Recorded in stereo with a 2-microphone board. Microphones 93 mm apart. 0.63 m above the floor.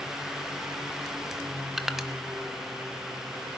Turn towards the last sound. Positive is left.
turn(degrees=-5)  # may be behind; listen again after turning